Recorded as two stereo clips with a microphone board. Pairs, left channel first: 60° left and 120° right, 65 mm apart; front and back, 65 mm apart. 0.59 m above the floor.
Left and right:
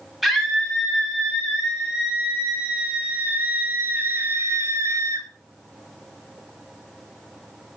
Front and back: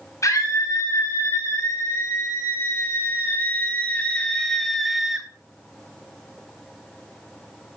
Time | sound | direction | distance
0.2 | a scream | 35° right | 4 m